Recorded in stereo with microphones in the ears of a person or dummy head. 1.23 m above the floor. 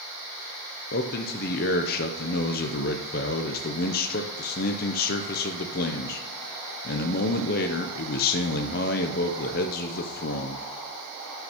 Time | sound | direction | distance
0.9 | a man speaking | 50° left (ahead or behind) | 0.5 m